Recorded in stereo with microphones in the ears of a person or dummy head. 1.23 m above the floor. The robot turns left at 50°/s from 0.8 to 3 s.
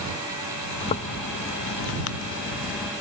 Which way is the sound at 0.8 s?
145° left.